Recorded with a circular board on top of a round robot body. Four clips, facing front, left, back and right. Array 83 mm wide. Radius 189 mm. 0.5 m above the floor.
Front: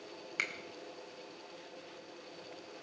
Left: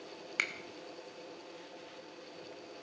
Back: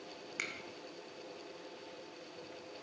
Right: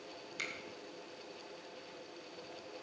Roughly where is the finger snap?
Left.